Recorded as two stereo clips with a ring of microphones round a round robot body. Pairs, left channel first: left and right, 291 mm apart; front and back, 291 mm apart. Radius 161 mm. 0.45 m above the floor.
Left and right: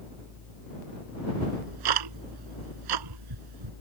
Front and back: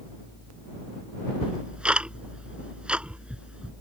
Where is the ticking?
95° right.